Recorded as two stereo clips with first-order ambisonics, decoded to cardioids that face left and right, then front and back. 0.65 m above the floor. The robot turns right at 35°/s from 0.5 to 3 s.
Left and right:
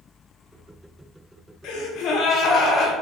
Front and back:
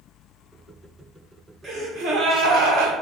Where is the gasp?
110° left, 1.0 m; by 2.9 s 155° left, 1.0 m.